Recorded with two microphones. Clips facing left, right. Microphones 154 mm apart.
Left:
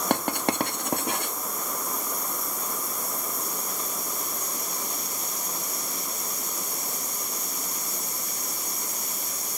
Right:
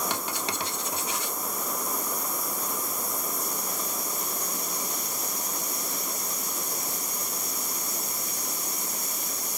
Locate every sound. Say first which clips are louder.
0.1 s writing: left 7 dB; 55° left (ahead or behind), 1.1 m